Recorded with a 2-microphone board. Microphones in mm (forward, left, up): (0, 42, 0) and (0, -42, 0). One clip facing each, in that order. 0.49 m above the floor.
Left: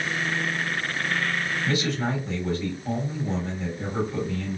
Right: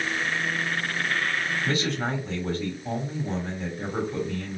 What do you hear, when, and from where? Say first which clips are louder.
1.6 s a man speaking: left 3 dB; 40° right (ahead or behind), 1.5 m